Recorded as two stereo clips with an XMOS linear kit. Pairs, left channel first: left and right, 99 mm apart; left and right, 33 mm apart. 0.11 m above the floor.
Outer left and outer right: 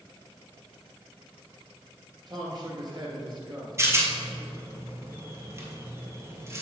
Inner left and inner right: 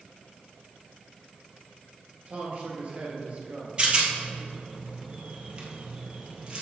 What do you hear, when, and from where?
2.3 s a man speaking: 45° right (ahead or behind), 1.9 m
3.8 s a rattle: 30° right (ahead or behind), 1.4 m